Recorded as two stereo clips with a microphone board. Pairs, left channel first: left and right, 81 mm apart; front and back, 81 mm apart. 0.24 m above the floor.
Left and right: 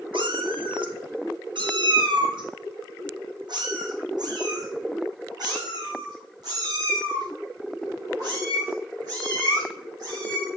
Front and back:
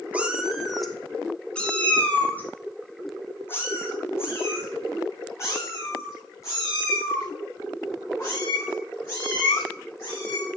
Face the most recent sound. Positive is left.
turn(degrees=-50)